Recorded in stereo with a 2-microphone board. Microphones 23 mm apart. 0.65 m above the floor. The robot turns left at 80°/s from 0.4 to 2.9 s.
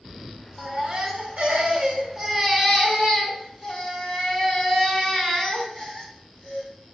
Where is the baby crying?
35° right, 1.0 m; by 6.7 s 140° left, 1.0 m.